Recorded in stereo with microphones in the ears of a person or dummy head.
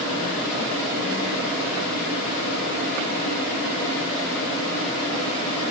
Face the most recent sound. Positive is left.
No sound to turn to.